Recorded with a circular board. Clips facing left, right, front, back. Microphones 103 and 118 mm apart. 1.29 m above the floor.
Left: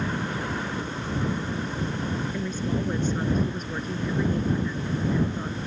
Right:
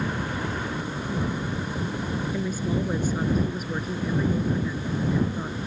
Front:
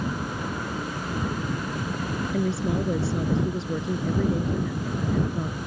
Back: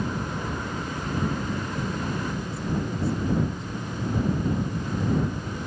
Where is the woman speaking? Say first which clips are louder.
Right 1 dB, front 4 dB; 5° right.